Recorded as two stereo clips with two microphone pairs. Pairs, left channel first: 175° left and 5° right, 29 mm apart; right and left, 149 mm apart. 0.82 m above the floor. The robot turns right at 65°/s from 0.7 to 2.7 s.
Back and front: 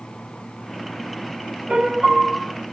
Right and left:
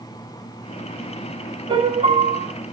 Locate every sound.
1.7 s a piano: 35° left, 1.5 m; by 2.5 s 90° left, 1.5 m